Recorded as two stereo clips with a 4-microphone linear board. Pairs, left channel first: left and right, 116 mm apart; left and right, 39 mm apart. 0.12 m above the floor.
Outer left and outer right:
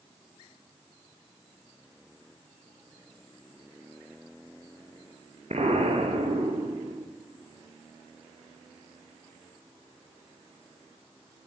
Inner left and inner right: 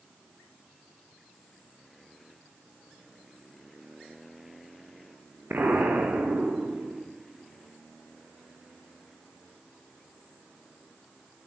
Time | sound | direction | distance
5.5 | an explosion | 70° right (ahead or behind) | 5 m